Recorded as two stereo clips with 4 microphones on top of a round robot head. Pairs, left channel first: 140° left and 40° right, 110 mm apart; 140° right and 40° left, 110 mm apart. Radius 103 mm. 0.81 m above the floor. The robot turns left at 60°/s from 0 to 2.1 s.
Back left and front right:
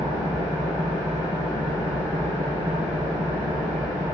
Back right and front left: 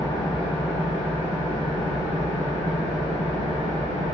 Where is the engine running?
Straight behind, 1.7 m; by 4.1 s 55° left, 1.7 m.